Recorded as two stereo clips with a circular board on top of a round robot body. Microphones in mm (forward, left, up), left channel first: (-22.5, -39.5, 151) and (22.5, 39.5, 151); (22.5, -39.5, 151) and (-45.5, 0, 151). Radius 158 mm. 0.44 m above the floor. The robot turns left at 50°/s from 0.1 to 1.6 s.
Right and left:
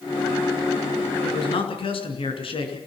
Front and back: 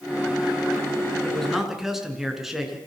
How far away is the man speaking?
About 6 m.